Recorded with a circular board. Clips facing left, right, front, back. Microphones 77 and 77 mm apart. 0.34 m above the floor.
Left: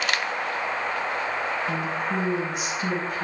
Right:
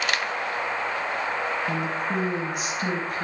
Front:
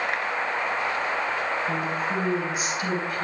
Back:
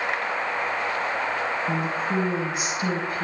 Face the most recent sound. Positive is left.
turn(degrees=-115)